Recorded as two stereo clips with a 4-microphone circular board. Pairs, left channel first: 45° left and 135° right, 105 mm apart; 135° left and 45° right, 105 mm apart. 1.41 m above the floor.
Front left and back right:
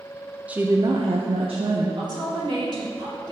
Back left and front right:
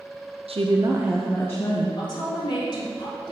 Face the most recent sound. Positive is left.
turn(degrees=180)